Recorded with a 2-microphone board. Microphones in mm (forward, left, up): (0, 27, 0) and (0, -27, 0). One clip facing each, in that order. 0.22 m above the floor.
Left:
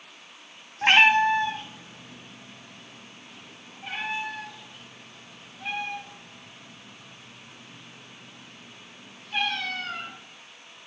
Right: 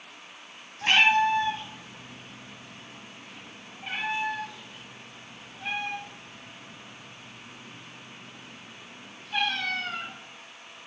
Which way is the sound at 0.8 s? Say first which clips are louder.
Left 3 dB; 40° left (ahead or behind).